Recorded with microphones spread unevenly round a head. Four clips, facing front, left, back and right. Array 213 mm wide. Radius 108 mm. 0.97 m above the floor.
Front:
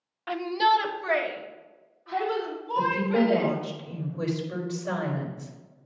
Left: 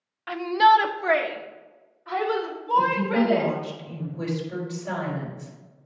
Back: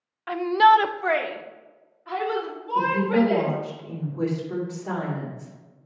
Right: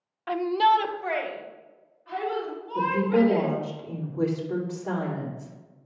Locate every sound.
0.3 s a shout: 65° right, 0.6 m; by 3.5 s 140° left, 4.5 m
2.8 s a woman speaking: 125° right, 3 m